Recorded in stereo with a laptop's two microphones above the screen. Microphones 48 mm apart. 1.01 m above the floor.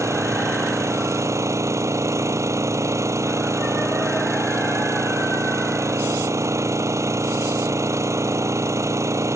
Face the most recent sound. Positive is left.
turn(degrees=-80)